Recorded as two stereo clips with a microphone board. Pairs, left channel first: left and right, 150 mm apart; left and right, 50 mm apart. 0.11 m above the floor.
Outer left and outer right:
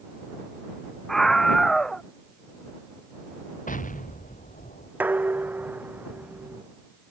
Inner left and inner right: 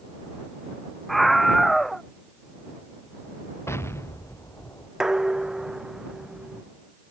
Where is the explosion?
70° left (ahead or behind).